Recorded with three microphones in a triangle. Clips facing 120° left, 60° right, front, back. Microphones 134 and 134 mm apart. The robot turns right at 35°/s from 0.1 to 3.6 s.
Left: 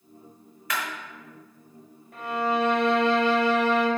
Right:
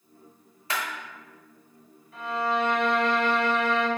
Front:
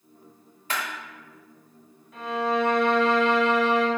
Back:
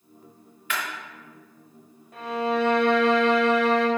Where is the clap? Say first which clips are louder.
Even, even; 20° right, 0.9 m; by 0.8 s 15° right, 0.9 m.